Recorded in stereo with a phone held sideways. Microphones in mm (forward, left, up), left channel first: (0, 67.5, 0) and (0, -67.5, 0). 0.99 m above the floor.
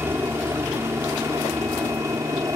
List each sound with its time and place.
0.0 s a helicopter: 15° right (ahead or behind); by 2.6 s 20° right (ahead or behind)